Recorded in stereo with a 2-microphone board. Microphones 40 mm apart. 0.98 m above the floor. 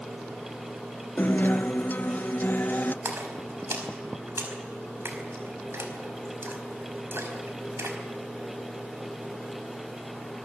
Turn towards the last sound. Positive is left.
turn(degrees=-80)